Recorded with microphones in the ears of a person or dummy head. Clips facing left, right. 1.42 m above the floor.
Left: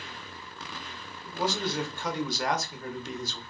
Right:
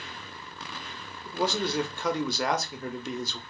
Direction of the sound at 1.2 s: 65° right (ahead or behind).